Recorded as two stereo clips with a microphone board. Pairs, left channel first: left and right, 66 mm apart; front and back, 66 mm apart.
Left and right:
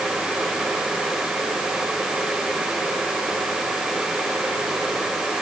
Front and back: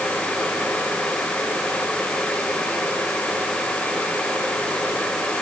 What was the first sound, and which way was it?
Only background noise.